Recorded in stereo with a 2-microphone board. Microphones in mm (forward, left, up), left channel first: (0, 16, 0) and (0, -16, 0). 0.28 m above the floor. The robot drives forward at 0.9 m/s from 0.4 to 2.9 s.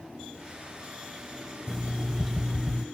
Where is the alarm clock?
10° right (ahead or behind), 0.6 m; by 2.9 s 5° right (ahead or behind), 1.0 m.